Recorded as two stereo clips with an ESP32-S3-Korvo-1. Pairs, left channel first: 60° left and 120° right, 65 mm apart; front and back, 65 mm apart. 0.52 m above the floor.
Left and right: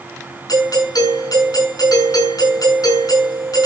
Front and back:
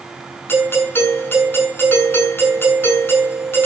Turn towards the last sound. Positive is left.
turn(degrees=50)